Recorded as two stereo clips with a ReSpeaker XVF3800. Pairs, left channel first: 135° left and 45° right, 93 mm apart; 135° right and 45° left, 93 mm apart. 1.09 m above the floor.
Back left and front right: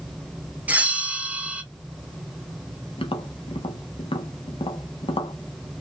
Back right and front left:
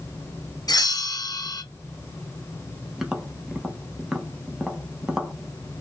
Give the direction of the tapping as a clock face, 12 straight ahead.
8 o'clock.